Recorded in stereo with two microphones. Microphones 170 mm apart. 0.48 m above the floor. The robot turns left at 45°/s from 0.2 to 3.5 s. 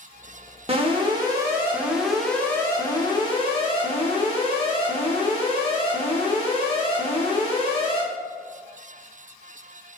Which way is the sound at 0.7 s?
115° right.